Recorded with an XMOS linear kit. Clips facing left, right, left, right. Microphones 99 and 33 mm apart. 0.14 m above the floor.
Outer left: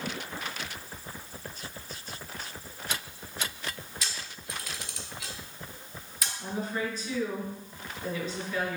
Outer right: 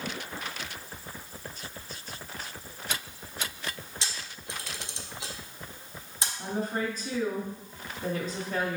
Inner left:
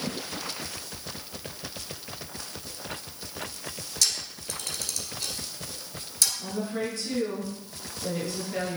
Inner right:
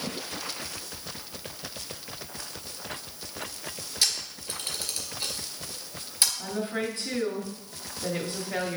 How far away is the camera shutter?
About 1.5 m.